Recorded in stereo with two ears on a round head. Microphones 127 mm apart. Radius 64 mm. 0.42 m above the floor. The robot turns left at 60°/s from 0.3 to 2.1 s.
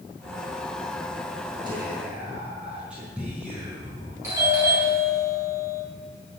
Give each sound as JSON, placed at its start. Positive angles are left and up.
{"t": 1.6, "sound": "whispering", "side_deg": -35, "distance_m": 4.5}
{"t": 4.2, "sound": "a doorbell", "side_deg": -20, "distance_m": 5.0}